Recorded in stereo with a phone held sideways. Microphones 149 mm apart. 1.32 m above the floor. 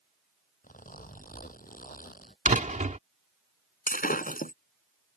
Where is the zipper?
70° left (ahead or behind).